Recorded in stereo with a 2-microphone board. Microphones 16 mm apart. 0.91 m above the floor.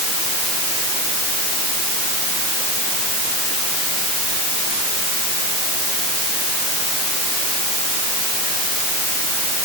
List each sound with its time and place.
Only background noise.